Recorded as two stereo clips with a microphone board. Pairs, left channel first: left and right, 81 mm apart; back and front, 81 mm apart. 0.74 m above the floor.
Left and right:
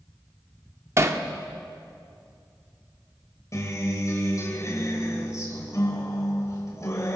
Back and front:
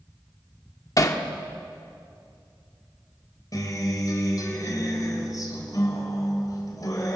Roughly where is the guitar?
Behind left.